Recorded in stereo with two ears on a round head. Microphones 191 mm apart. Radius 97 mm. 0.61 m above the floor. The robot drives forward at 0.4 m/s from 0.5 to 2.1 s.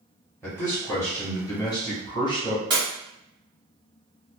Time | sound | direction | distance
0.4 | a man speaking | 15° left (ahead or behind) | 1.3 m
2.7 | breaking glass | 20° right (ahead or behind) | 1.7 m